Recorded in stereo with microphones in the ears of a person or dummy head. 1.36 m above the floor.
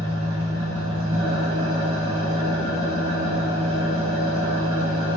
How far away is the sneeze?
No sneeze in this recording.